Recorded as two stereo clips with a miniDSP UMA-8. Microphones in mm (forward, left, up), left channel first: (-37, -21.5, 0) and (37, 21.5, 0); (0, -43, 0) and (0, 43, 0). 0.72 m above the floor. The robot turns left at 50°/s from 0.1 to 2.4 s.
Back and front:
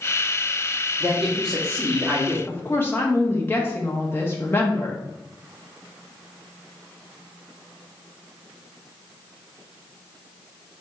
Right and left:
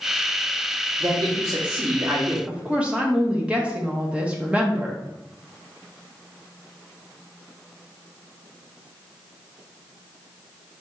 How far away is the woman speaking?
About 0.9 m.